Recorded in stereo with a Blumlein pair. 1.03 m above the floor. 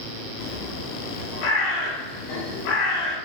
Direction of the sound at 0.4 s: 40° left.